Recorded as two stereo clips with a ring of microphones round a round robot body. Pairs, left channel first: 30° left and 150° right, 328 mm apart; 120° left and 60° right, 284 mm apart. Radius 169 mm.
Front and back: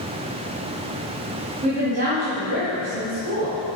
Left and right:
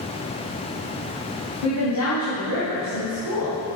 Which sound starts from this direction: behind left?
A woman speaking, at 1.6 s.